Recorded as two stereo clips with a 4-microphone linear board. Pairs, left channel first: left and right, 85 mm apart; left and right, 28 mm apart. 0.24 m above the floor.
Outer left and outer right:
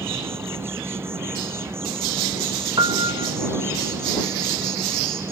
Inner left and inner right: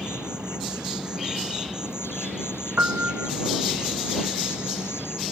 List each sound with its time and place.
0.0 s an insect: 30° right (ahead or behind)
2.8 s a piano: 60° right (ahead or behind)